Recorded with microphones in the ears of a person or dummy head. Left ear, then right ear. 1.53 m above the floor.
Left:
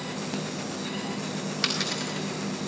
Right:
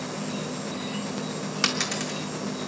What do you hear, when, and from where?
0.0 s an insect: 30° right (ahead or behind), 3.5 m
1.6 s a dropped coin: 25° right (ahead or behind), 2 m